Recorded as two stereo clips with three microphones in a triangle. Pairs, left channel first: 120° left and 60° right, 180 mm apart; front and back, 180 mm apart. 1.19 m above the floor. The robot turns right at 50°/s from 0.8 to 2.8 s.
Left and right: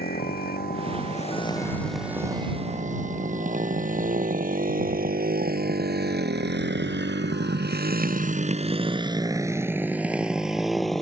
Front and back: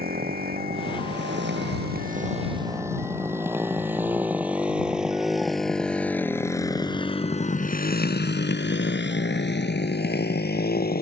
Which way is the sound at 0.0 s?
150° left.